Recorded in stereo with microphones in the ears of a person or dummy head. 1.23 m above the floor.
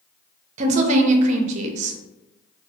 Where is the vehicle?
No vehicle in this recording.